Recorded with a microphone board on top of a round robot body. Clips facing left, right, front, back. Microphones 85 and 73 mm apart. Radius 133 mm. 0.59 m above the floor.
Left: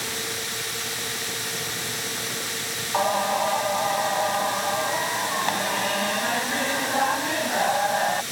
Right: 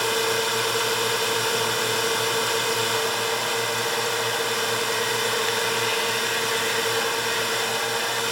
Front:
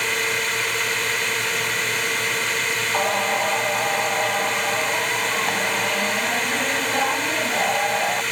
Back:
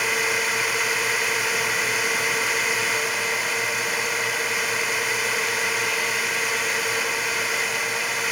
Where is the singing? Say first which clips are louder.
Left 3 dB, front 4 dB; 40° left.